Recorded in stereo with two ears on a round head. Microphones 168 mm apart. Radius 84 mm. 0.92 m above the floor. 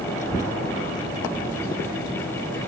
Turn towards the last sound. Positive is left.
turn(degrees=50)  # may be behind; listen again after turning